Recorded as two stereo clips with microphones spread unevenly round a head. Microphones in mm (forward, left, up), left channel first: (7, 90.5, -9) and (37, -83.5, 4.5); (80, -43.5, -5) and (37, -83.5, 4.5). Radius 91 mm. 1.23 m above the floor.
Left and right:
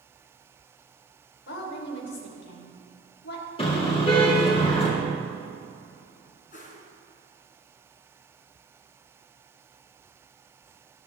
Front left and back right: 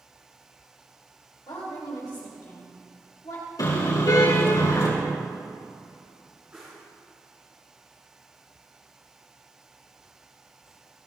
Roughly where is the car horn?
Ahead left.